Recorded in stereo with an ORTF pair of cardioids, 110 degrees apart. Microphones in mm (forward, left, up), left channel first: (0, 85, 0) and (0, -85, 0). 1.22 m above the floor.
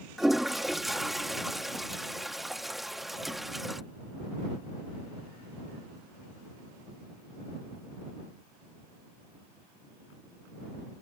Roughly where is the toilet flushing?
Ahead.